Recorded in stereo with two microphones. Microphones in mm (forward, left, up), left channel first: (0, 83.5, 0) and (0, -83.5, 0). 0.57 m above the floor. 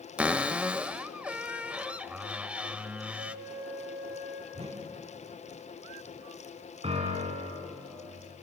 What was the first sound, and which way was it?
A cupboard door, 5° right (ahead or behind).